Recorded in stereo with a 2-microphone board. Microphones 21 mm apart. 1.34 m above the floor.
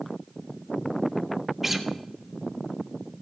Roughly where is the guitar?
Centre.